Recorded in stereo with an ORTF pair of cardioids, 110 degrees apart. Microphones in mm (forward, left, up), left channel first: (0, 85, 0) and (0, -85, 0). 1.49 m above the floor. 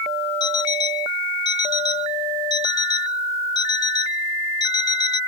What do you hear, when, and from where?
0.4 s an alarm clock: 25° left